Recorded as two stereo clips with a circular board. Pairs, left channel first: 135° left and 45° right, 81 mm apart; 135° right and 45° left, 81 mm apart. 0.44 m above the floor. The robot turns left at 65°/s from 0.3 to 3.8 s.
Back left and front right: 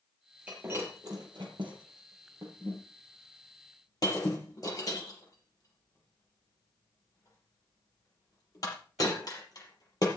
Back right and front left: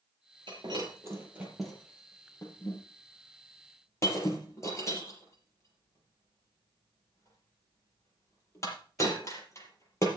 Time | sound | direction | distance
0.5 | breaking glass | 30° left | 5 m